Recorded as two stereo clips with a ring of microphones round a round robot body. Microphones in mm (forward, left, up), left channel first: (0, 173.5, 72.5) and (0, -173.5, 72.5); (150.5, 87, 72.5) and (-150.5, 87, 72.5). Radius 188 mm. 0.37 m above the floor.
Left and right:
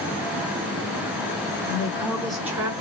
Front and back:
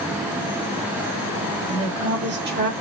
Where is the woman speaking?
155° left, 1.8 m; by 2.7 s 155° right, 1.4 m.